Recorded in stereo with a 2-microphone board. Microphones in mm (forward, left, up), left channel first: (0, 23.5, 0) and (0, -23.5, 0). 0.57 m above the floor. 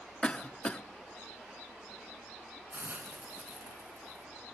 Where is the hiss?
40° right (ahead or behind), 3.5 m.